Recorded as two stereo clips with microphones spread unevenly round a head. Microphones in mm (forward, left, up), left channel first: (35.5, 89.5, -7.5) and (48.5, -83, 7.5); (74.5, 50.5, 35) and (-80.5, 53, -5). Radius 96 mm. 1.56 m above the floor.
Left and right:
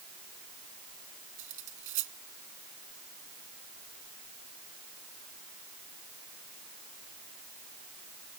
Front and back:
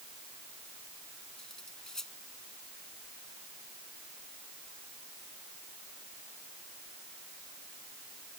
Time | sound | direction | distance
1.4 | cutlery clinking | 85° right | ?